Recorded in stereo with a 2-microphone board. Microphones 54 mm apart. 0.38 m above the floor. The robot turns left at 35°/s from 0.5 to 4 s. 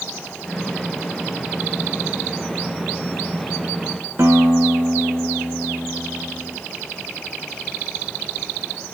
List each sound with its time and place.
4.2 s a guitar: 50° right (ahead or behind), 1.7 m